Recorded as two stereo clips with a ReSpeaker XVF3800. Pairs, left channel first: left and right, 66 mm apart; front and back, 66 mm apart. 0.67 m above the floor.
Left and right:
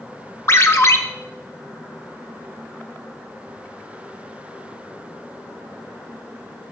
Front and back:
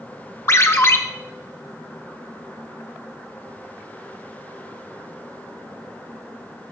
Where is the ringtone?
45° left, 0.7 m.